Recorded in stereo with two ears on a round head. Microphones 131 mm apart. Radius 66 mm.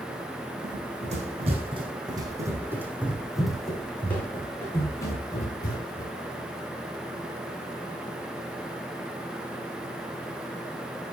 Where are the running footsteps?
60° right (ahead or behind), 4 m; by 6.1 s 30° left (ahead or behind), 6.5 m.